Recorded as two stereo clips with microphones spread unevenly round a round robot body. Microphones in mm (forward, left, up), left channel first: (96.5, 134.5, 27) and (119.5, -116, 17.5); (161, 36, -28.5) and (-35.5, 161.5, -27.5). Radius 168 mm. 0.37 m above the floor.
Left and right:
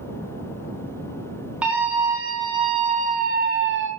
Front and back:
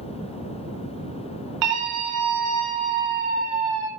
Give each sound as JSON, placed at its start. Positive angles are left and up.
{"t": 1.6, "sound": "a scream", "azimuth_deg": -170, "distance_m": 3.0}